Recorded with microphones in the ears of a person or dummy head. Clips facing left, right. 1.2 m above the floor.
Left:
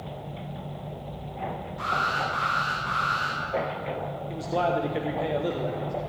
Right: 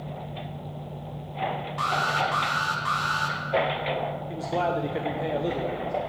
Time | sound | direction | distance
1.8 | an alarm | 80° right | 2.5 m
4.3 | a man speaking | centre (ahead or behind) | 0.9 m